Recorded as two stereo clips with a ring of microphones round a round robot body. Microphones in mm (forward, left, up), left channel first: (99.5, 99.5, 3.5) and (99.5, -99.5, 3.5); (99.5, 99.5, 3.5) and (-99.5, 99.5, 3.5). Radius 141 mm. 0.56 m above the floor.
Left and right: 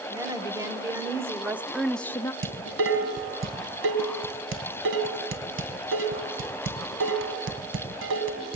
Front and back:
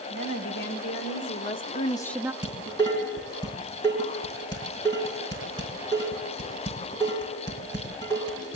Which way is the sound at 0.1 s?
20° right.